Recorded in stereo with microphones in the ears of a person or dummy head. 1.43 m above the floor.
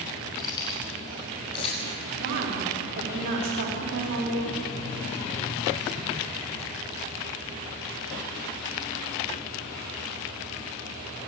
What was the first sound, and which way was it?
Keys jangling, 20° left (ahead or behind).